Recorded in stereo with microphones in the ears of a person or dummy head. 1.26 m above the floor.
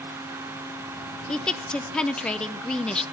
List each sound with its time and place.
1.3 s a woman speaking: centre (ahead or behind), 0.6 m